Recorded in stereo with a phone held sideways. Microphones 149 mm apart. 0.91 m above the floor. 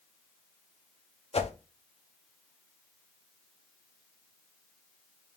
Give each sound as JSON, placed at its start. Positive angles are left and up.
{"t": 1.3, "sound": "a whoosh", "side_deg": 45, "distance_m": 0.7}